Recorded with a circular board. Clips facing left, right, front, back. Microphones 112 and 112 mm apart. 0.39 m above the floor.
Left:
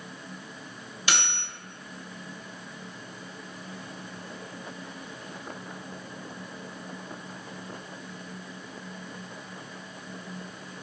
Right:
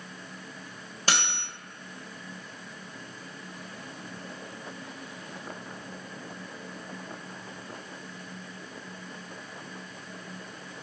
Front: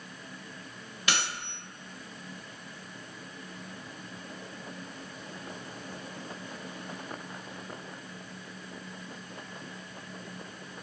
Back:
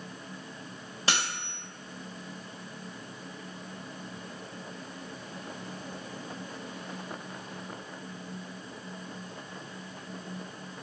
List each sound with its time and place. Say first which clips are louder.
1.1 s cutlery clinking: right 1 dB, back 1 dB; 130° right, 0.7 m